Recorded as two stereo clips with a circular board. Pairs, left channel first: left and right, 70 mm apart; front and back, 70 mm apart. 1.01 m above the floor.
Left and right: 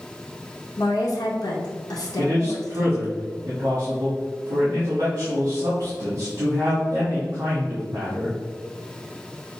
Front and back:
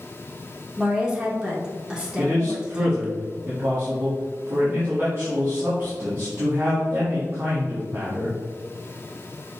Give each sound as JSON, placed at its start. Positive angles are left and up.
{"t": 0.8, "sound": "a woman speaking", "azimuth_deg": 100, "distance_m": 1.0}
{"t": 2.2, "sound": "a man speaking", "azimuth_deg": -125, "distance_m": 1.7}